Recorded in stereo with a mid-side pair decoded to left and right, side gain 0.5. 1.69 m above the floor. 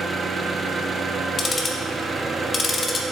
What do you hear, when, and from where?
0.0 s an engine running: 30° right, 0.8 m
1.4 s ticking: 35° left, 1.0 m